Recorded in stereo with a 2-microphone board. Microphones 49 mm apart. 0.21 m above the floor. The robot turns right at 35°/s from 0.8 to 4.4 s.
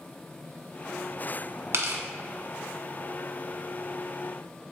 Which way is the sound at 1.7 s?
55° right (ahead or behind).